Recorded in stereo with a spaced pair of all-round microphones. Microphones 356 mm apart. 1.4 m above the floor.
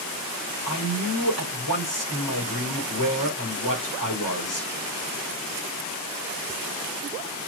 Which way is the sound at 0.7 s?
65° left (ahead or behind).